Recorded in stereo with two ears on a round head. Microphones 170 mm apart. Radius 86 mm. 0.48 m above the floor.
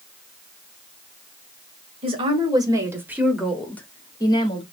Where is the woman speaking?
30° right (ahead or behind), 1.7 m; by 4.6 s 30° left (ahead or behind), 1.4 m.